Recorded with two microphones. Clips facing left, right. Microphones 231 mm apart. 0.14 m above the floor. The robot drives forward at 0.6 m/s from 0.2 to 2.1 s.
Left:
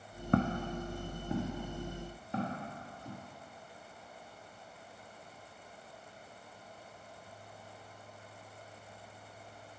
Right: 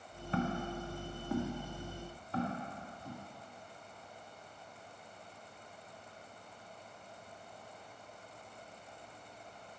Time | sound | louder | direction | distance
0.3 | footsteps | left 5 dB | 60° left (ahead or behind) | 0.5 m